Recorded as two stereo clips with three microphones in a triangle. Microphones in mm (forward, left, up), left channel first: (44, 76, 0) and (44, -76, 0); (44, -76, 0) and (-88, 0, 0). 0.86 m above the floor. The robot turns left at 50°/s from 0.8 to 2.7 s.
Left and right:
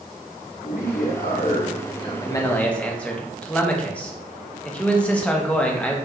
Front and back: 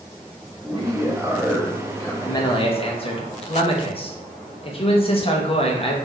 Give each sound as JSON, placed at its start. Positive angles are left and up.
{"t": 0.6, "sound": "a man speaking", "azimuth_deg": 100, "distance_m": 1.0}
{"t": 2.2, "sound": "a man speaking", "azimuth_deg": 35, "distance_m": 0.7}